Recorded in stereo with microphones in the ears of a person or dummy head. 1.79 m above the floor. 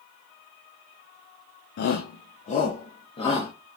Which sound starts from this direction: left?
A shout, at 1.8 s.